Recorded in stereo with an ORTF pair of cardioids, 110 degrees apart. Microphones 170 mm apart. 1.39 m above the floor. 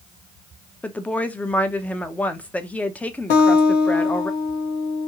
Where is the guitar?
70° left, 1.2 m.